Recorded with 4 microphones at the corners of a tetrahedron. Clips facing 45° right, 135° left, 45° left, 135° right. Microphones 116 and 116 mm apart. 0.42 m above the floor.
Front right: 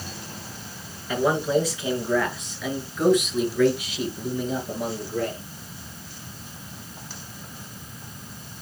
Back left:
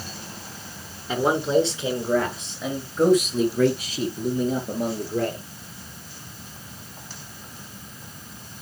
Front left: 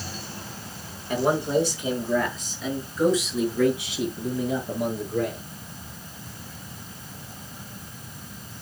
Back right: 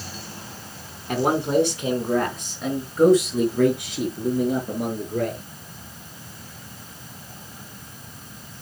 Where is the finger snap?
I don't hear a finger snap.